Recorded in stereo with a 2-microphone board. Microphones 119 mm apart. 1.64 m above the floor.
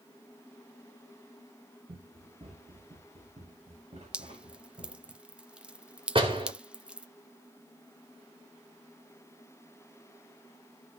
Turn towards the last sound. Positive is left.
turn(degrees=-50)  # may be behind; listen again after turning